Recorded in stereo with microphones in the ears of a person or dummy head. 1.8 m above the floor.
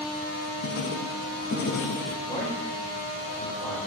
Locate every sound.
0.6 s writing: 60° left (ahead or behind), 0.9 m
2.2 s a man speaking: 35° left (ahead or behind), 4 m